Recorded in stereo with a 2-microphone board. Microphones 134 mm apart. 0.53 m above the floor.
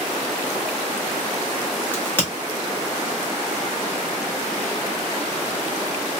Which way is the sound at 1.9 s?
15° left (ahead or behind).